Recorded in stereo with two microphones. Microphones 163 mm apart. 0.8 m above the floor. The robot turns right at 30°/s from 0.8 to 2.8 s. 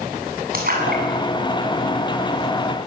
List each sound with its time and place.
0.5 s a splash: 65° right (ahead or behind), 7 m; by 2.7 s 60° right (ahead or behind), 7 m